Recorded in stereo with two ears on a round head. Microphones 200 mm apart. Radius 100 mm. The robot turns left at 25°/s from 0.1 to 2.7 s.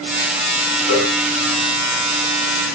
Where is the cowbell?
80° left, 4.5 m; by 1.1 s 75° left (ahead or behind), 4.5 m.